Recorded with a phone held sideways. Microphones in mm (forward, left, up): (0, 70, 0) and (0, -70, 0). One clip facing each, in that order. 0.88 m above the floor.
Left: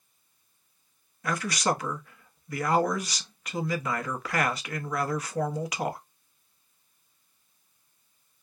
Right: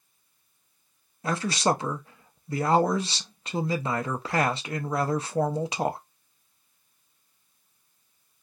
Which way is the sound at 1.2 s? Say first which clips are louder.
Right 3 dB; 30° right (ahead or behind).